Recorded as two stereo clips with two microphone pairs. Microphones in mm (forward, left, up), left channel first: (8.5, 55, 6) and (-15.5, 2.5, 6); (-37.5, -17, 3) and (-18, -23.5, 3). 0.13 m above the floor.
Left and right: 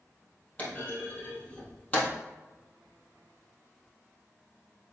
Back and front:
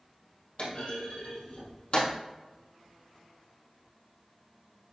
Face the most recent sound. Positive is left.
turn(degrees=130)